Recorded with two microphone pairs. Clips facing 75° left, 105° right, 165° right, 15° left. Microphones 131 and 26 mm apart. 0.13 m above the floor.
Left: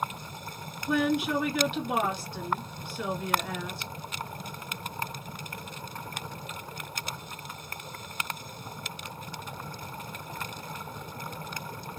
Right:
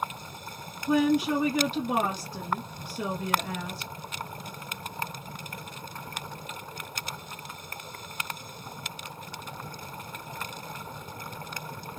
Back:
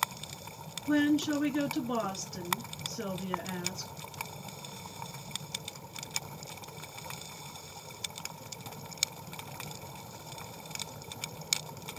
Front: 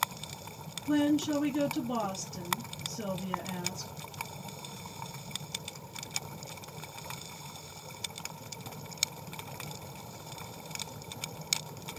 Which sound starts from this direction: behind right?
A woman speaking, at 0.9 s.